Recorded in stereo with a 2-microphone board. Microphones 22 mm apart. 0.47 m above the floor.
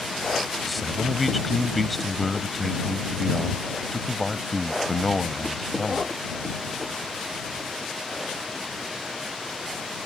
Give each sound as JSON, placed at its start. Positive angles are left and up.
{"t": 0.7, "sound": "a man speaking", "side_deg": 0}